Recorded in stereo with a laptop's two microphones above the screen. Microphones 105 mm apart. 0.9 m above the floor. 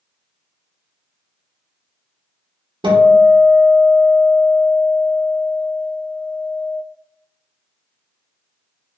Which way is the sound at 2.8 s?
50° right (ahead or behind).